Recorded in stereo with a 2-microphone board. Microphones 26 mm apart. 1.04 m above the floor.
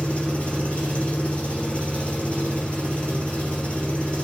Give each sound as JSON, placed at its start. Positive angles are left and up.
{"t": 0.0, "sound": "an engine running", "side_deg": 55, "distance_m": 5.5}